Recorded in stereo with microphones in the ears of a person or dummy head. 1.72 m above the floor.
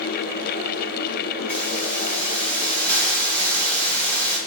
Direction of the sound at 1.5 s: 15° left (ahead or behind).